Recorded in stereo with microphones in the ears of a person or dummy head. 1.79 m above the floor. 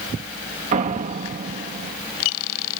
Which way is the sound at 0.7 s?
45° right (ahead or behind).